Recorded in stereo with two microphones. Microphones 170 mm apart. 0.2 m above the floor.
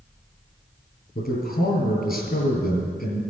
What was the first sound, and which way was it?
A man speaking, 70° left (ahead or behind).